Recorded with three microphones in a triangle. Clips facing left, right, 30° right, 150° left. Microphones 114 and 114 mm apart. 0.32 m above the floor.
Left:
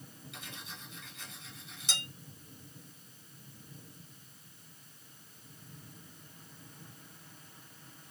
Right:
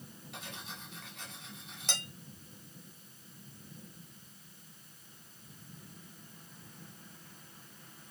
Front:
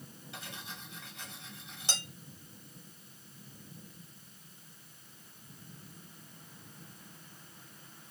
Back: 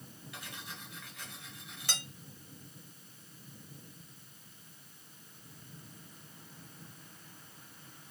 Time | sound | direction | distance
0.3 | cutlery clinking | 95° right | 1.4 m